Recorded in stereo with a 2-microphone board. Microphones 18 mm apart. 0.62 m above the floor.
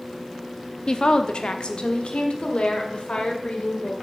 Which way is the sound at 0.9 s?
40° left (ahead or behind).